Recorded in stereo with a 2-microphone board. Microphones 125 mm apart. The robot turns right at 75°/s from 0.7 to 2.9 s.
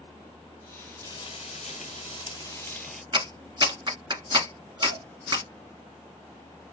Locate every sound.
1.0 s frying: 35° left, 0.9 m; by 3.0 s 175° left, 0.9 m
3.1 s a clap: 35° right (ahead or behind), 1.6 m